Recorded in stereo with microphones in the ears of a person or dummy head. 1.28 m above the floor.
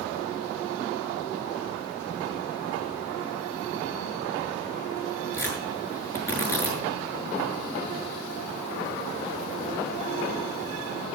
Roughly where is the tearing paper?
Centre.